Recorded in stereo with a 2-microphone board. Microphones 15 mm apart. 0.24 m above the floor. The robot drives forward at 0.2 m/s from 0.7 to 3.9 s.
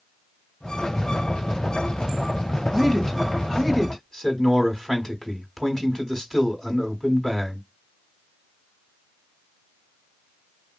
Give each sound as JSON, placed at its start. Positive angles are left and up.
{"t": 2.7, "sound": "a man speaking", "side_deg": 25, "distance_m": 1.2}